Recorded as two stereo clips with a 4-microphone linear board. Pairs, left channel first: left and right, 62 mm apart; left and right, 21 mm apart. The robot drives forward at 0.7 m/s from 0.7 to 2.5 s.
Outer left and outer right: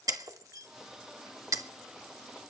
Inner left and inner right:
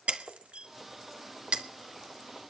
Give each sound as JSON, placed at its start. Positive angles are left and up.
{"t": 0.1, "sound": "breaking glass", "side_deg": -65, "distance_m": 1.1}